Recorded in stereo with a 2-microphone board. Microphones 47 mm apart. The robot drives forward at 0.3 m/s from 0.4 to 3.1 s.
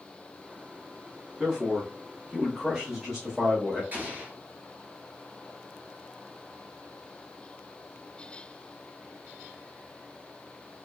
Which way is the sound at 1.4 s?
15° right (ahead or behind).